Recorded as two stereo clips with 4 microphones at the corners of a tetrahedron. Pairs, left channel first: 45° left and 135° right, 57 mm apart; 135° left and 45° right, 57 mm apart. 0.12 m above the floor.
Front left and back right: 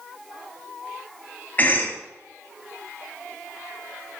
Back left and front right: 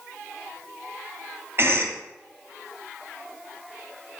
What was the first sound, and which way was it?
A cough, 10° right.